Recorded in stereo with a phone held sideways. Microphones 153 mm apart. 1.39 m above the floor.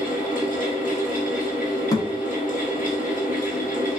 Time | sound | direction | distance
0.0 | a fan | 60° left (ahead or behind) | 1.7 m
1.9 | a thud | 25° left (ahead or behind) | 0.8 m